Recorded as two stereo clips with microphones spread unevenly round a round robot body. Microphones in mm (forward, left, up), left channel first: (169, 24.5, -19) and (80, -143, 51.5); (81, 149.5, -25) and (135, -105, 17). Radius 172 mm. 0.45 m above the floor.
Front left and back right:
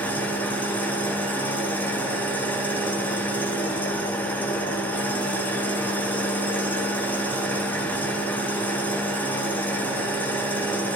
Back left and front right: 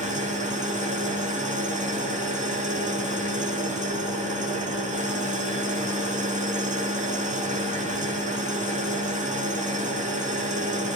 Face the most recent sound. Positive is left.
turn(degrees=-15)